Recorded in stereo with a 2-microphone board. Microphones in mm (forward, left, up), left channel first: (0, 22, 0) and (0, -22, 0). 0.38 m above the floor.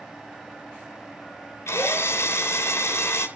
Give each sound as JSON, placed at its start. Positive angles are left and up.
{"t": 1.7, "sound": "a drill", "side_deg": 75, "distance_m": 3.0}